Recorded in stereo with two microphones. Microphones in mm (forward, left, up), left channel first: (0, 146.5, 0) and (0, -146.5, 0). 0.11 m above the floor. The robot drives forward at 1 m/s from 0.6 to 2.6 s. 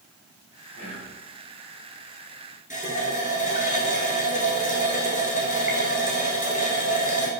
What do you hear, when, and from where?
0.7 s whispering: 55° right (ahead or behind), 2 m; by 1.2 s 60° right (ahead or behind), 2 m
2.7 s a running tap: 25° left (ahead or behind), 1.0 m